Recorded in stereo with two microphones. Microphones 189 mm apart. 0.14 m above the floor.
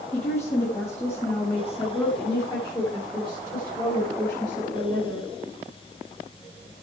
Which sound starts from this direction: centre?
A woman speaking, at 0.1 s.